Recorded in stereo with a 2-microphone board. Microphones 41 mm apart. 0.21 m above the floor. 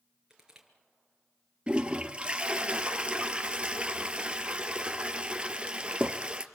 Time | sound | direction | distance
0.3 | crushing | 15° right (ahead or behind) | 4.5 m
1.7 | a toilet flushing | 25° right (ahead or behind) | 1.7 m